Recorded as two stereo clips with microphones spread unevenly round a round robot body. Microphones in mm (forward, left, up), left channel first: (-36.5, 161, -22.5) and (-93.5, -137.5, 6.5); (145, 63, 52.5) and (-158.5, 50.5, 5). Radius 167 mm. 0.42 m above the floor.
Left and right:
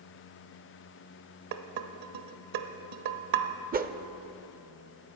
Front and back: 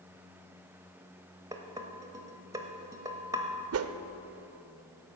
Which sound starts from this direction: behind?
A whoosh, at 3.7 s.